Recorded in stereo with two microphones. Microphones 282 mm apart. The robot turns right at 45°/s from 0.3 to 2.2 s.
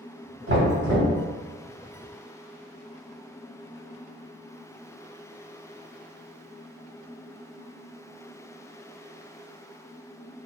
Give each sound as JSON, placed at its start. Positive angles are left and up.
{"t": 0.5, "sound": "knocking", "azimuth_deg": -65, "distance_m": 1.8}